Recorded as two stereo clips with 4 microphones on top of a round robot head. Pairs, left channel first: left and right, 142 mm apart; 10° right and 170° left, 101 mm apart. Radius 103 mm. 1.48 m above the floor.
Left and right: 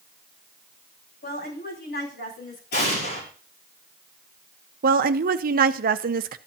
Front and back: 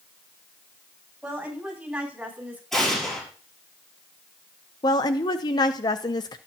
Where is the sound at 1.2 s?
95° left, 10 m.